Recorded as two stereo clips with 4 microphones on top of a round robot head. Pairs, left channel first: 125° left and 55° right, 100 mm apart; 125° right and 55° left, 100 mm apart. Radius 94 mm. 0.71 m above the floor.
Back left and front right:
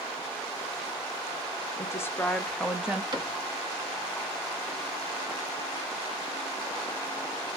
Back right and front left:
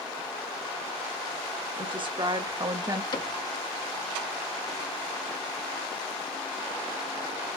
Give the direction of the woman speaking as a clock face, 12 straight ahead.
10 o'clock.